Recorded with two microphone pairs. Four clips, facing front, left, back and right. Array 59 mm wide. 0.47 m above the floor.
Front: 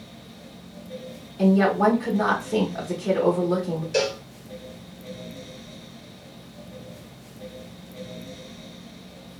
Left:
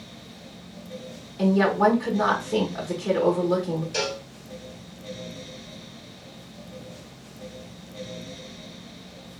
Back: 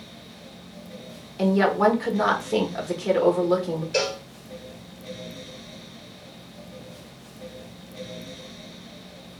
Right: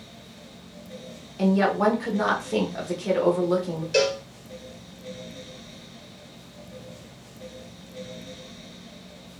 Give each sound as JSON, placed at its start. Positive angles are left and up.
{"t": 1.4, "sound": "a woman speaking", "azimuth_deg": -165, "distance_m": 0.8}
{"t": 3.9, "sound": "a cowbell", "azimuth_deg": -90, "distance_m": 2.0}